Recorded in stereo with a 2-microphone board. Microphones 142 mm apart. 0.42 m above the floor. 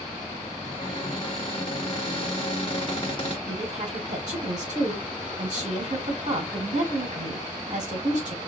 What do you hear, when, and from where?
0.6 s a cupboard door: 35° left (ahead or behind), 1.7 m
3.5 s a woman speaking: 60° right (ahead or behind), 3 m